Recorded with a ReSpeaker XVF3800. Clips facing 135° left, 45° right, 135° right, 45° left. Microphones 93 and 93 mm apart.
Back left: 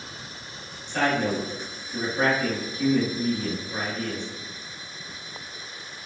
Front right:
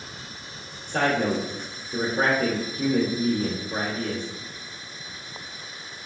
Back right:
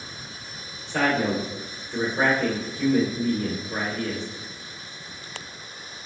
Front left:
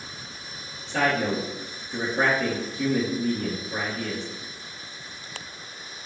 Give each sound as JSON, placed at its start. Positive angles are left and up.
{"t": 0.9, "sound": "a man speaking", "azimuth_deg": -40, "distance_m": 1.6}